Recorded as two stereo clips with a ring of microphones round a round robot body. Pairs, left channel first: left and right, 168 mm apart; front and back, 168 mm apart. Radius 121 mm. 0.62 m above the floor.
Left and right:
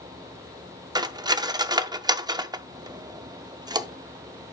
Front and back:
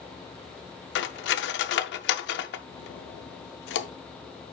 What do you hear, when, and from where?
0.9 s cutlery clinking: 20° right, 0.5 m